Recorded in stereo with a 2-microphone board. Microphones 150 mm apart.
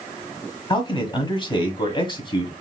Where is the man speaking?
30° left (ahead or behind), 1.4 m.